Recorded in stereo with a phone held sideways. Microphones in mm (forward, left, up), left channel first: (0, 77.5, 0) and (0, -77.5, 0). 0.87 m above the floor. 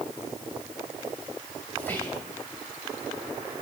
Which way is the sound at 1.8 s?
10° left (ahead or behind).